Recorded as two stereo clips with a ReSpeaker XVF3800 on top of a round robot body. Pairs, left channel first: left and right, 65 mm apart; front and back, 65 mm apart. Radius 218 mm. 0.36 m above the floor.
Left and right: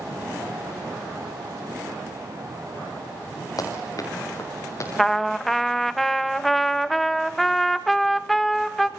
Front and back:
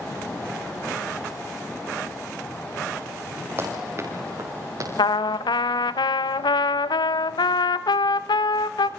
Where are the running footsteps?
125° left, 5.5 m; by 4.9 s 140° left, 6 m.